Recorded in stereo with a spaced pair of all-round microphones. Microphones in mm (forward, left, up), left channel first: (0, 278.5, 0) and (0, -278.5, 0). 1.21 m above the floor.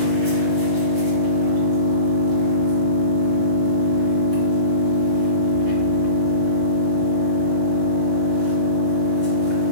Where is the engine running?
40° right (ahead or behind), 1.3 m.